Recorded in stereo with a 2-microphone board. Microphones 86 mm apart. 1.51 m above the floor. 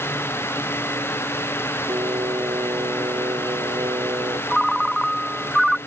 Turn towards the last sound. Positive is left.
turn(degrees=0)  # may be behind; listen again after turning